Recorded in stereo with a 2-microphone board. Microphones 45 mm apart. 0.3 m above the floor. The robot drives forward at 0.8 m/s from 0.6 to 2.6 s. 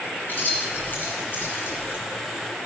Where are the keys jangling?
40° left (ahead or behind), 2.5 m; by 2.0 s 60° left (ahead or behind), 2 m.